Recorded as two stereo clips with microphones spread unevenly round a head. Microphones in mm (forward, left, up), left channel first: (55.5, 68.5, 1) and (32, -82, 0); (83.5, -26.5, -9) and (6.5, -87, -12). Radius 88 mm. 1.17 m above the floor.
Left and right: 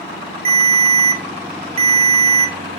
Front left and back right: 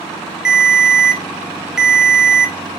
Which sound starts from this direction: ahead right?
A ringtone, at 0.5 s.